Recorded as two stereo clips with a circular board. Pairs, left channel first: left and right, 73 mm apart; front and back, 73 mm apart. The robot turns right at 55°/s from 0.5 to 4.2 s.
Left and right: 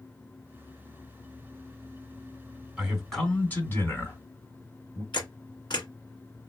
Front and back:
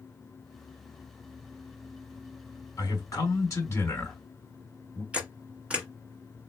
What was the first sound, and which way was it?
A man speaking, 10° right.